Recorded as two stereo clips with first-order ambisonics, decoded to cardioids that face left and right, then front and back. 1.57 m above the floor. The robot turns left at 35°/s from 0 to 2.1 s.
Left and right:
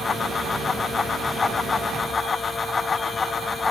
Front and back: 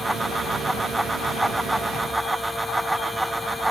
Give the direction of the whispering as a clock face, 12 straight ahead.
No whispering in this recording.